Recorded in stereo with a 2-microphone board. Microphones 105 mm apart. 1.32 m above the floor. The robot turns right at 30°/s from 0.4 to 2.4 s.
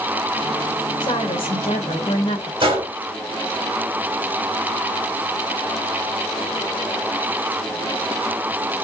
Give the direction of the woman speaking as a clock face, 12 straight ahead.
10 o'clock.